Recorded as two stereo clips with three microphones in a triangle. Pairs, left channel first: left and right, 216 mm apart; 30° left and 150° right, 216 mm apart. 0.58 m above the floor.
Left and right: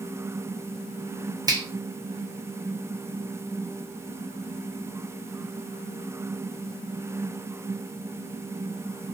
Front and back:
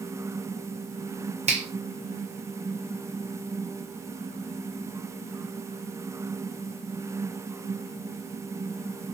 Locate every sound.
1.5 s a finger snap: 145° right, 0.6 m